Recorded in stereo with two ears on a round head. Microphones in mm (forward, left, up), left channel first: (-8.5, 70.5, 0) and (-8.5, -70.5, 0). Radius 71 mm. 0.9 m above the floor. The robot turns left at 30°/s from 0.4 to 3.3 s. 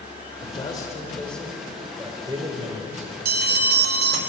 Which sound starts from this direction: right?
A bell, at 3.2 s.